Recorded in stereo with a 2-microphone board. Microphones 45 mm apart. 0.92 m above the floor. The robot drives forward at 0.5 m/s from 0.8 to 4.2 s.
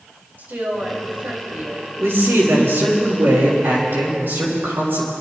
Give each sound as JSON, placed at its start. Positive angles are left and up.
{"t": 0.4, "sound": "a woman speaking", "side_deg": -50, "distance_m": 4.5}
{"t": 2.0, "sound": "a man speaking", "side_deg": -75, "distance_m": 3.5}